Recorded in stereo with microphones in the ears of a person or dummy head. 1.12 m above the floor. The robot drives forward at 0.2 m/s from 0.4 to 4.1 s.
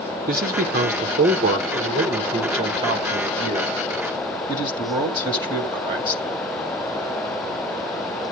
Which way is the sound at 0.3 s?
45° right (ahead or behind).